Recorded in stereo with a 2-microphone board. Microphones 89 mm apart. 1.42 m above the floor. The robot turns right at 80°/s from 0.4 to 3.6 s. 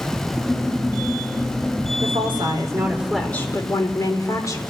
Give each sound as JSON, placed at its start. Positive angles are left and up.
{"t": 2.0, "sound": "a woman speaking", "azimuth_deg": -90, "distance_m": 4.0}